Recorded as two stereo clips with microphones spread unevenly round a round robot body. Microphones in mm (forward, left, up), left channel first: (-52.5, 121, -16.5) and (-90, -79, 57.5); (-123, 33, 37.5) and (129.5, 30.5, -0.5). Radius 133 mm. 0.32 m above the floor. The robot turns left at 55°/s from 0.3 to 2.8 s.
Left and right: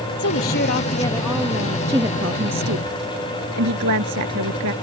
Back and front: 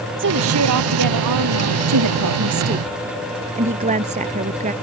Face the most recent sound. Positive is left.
turn(degrees=-65)